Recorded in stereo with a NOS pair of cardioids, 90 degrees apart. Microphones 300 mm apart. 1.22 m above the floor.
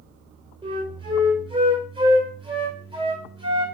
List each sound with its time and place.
0.6 s a flute: 15° right, 3 m